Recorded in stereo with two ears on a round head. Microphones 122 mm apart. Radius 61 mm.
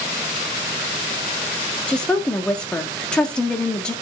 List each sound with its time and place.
1.9 s a woman speaking: 5° left (ahead or behind), 1.5 m